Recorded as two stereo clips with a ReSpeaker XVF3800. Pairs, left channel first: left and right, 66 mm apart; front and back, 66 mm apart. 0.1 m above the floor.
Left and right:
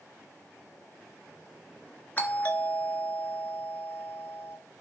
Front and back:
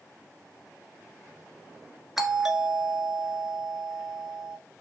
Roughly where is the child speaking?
No child speaking in this recording.